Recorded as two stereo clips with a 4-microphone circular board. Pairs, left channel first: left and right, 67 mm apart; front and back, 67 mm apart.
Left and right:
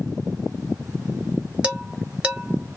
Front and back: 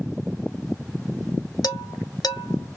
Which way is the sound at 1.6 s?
15° right.